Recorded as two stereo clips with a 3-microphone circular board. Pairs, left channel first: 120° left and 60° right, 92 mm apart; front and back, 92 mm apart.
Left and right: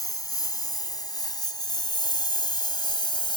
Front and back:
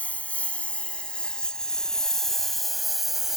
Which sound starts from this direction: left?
A lawn mower, at 0.0 s.